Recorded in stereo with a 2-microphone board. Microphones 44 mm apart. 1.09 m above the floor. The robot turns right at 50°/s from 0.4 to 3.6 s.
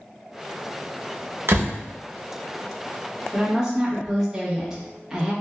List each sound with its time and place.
1.5 s a door slam: 60° right (ahead or behind), 0.5 m; by 1.8 s 65° right (ahead or behind), 0.5 m
3.3 s a woman speaking: 5° left (ahead or behind), 1.1 m; by 5.3 s 10° right (ahead or behind), 1.1 m